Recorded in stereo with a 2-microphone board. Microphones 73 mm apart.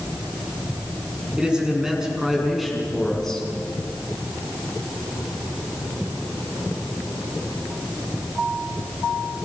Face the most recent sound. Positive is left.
turn(degrees=10)  # may be behind; listen again after turning